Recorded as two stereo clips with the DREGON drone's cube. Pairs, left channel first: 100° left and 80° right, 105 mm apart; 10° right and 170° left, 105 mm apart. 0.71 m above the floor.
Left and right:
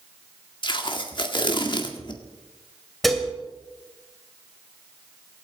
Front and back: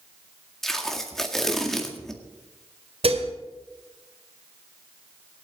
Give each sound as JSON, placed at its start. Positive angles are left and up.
{"t": 0.6, "sound": "tape being pulled", "azimuth_deg": 75, "distance_m": 1.9}
{"t": 3.0, "sound": "dishes clattering", "azimuth_deg": -170, "distance_m": 2.5}